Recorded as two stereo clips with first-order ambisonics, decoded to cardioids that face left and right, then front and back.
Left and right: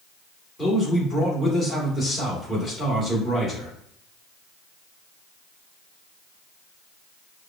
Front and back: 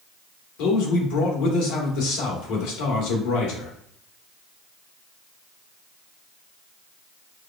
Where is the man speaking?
15° left, 1.4 m.